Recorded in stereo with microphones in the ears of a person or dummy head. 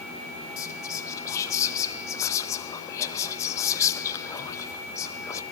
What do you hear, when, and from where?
0.6 s whispering: 10° left (ahead or behind), 0.6 m